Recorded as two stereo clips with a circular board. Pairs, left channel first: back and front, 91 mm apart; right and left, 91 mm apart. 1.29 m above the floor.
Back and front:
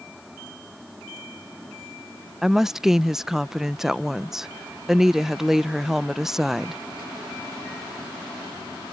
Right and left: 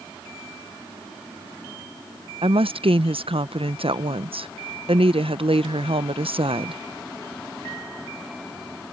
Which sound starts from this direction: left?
A woman speaking, at 2.4 s.